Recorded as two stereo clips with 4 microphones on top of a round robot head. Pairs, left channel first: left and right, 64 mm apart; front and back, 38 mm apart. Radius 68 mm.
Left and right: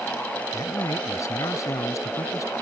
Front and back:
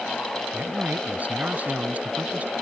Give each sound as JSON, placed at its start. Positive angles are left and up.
{"t": 0.5, "sound": "a man speaking", "azimuth_deg": 130}